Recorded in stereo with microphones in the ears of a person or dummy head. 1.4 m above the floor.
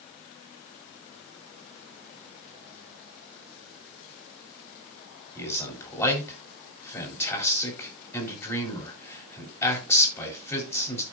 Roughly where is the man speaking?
Centre.